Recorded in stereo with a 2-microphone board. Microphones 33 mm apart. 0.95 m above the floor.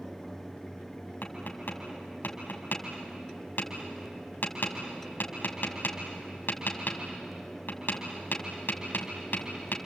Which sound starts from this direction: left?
Tapping, at 1.2 s.